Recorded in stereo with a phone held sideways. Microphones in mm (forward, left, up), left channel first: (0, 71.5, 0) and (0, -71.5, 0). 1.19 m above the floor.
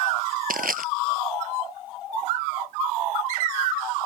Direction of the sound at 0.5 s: 80° right.